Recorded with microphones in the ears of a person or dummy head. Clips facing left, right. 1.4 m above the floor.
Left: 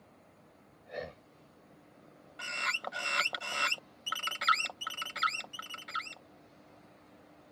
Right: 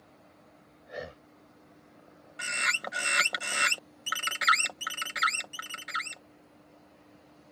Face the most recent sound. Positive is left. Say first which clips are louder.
# right 3 dB
turn(degrees=-20)  # may be behind; listen again after turning